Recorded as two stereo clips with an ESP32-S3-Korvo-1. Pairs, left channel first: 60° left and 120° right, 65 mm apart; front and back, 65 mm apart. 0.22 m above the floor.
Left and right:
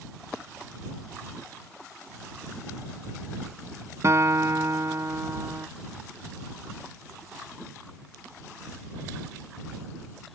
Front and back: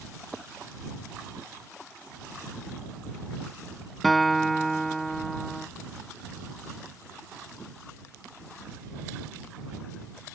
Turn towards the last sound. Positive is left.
turn(degrees=-90)